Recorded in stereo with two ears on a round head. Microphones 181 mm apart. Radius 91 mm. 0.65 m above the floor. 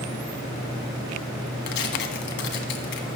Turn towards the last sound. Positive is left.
turn(degrees=55)  # may be behind; listen again after turning